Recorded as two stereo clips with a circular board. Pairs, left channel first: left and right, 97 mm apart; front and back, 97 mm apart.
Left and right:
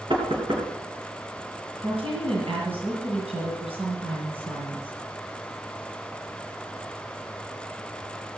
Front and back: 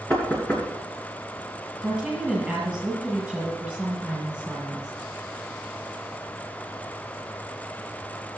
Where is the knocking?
65° right, 3 m.